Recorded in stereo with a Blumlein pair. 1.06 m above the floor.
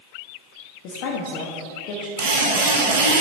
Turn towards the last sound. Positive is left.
turn(degrees=-55)